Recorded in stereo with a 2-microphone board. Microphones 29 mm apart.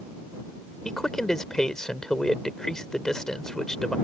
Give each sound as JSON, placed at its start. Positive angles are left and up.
{"t": 0.8, "sound": "a man speaking", "side_deg": 20}